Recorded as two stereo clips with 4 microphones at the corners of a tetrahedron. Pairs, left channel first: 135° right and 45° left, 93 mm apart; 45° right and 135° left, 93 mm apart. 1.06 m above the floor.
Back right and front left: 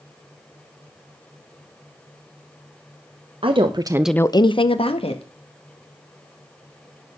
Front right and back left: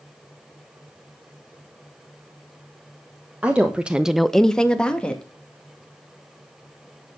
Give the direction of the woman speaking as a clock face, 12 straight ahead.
10 o'clock.